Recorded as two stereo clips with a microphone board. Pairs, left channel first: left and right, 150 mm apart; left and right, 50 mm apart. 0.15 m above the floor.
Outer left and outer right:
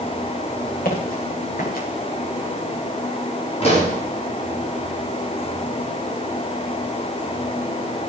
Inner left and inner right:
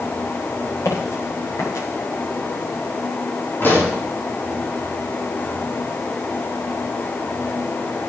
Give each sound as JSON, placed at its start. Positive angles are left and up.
{"t": 0.8, "sound": "footsteps", "side_deg": 80, "distance_m": 8.0}
{"t": 3.6, "sound": "a pop", "side_deg": 45, "distance_m": 8.0}